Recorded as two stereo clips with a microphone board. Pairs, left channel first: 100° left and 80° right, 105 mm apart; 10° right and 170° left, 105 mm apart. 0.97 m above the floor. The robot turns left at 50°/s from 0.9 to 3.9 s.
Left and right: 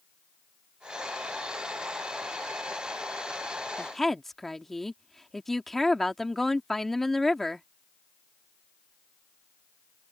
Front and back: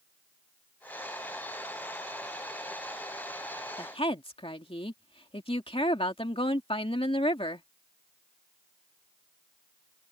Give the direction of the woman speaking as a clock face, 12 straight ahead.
11 o'clock.